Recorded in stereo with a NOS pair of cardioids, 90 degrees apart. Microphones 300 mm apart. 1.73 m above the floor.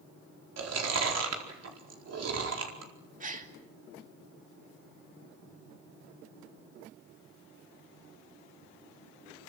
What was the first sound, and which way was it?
Chewing, 50° right.